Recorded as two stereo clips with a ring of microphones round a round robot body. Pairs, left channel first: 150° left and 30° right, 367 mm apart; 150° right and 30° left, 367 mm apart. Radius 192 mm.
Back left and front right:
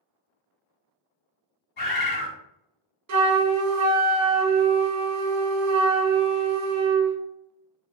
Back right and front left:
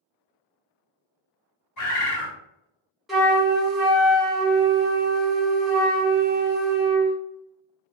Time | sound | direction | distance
1.8 | a bird | 155° right | 2.0 m
3.1 | a flute | 60° right | 0.7 m